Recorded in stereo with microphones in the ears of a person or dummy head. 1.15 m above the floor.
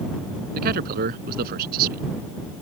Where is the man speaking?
50° right (ahead or behind).